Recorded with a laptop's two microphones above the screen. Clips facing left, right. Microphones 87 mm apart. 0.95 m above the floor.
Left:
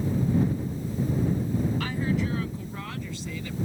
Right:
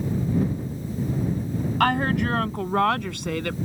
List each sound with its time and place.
1.8 s a woman speaking: 60° right (ahead or behind); by 3.5 s 65° right (ahead or behind)